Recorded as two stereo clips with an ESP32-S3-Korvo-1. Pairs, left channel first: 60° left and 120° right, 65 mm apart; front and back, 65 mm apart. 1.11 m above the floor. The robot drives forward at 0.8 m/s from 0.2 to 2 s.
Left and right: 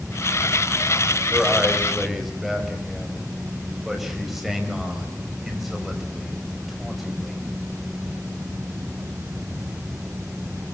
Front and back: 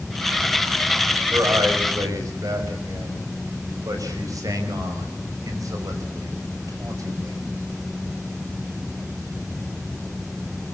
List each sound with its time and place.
1.3 s a man speaking: 150° left, 5.5 m